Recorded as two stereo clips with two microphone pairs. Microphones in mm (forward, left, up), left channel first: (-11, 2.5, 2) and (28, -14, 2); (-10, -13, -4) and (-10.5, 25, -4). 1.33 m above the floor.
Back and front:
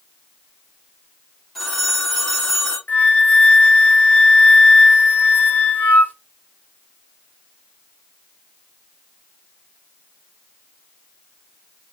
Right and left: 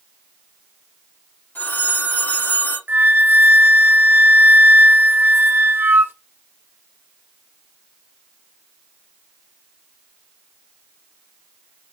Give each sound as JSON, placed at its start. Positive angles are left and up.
{"t": 1.6, "sound": "a phone ringing", "azimuth_deg": -115, "distance_m": 2.0}
{"t": 2.9, "sound": "a flute", "azimuth_deg": 105, "distance_m": 0.8}